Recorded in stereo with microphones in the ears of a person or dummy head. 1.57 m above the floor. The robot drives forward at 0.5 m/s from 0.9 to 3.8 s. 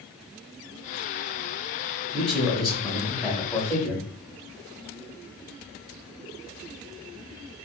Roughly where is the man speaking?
Centre.